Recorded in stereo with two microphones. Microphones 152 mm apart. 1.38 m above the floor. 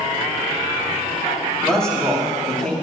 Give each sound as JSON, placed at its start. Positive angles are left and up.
{"t": 1.6, "sound": "a man speaking", "side_deg": 5, "distance_m": 3.0}